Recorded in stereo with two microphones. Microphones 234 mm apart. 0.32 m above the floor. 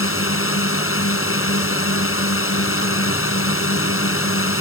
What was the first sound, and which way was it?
A drone, 65° left (ahead or behind).